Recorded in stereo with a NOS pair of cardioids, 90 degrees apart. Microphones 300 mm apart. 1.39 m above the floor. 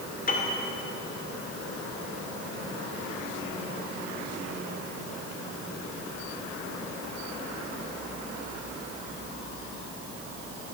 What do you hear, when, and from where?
0.3 s a piano: 30° left, 2.5 m